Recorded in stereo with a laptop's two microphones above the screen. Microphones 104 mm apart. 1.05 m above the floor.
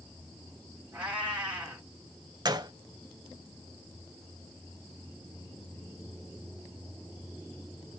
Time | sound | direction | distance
0.9 | a cat meowing | 15° right (ahead or behind) | 3.5 m
2.5 | a gunshot | 40° right (ahead or behind) | 0.7 m